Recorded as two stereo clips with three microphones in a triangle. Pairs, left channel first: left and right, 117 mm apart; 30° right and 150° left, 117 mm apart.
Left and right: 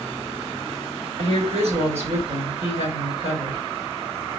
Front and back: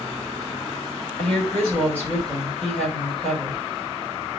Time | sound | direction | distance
1.2 | a woman speaking | 110° right | 4 m